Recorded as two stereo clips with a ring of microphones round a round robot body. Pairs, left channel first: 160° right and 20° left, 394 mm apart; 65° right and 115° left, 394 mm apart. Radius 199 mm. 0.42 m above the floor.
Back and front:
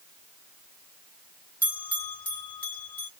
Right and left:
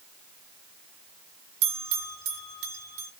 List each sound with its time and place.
1.6 s a bell: 120° left, 1.6 m